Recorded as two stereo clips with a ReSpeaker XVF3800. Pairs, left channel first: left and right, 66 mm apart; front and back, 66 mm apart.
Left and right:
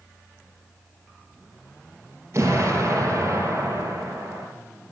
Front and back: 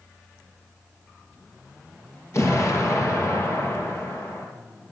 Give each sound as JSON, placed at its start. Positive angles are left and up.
{"t": 2.3, "sound": "an explosion", "azimuth_deg": -45, "distance_m": 3.5}